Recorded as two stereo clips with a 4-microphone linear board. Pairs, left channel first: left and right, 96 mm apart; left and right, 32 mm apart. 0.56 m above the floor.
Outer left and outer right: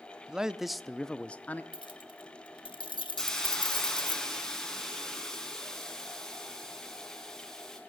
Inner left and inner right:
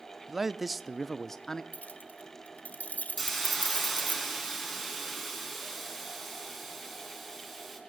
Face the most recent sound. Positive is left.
turn(degrees=5)  # may be behind; listen again after turning